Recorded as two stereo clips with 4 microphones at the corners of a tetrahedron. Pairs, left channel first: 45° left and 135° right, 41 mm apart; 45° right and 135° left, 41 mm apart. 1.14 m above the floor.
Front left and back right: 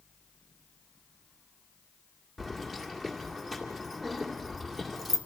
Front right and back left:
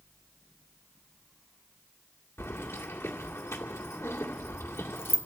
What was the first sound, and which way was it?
Keys jangling, 50° right.